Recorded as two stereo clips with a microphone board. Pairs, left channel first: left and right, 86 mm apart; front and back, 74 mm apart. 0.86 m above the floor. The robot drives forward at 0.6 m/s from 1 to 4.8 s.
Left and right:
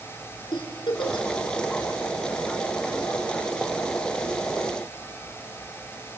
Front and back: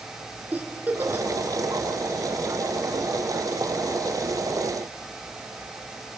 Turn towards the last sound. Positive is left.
turn(degrees=135)